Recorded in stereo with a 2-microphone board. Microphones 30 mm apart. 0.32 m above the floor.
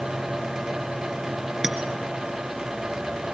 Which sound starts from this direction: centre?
A clink, at 1.6 s.